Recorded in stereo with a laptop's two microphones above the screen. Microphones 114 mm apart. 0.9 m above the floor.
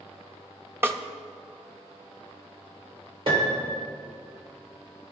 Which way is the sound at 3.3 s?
55° right (ahead or behind).